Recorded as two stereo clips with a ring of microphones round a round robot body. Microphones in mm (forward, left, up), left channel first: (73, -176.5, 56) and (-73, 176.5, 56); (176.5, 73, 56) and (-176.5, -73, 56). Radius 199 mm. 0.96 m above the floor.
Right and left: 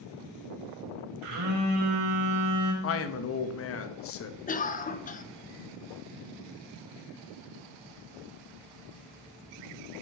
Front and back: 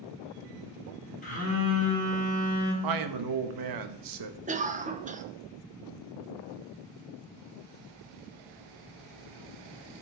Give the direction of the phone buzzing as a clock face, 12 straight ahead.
9 o'clock.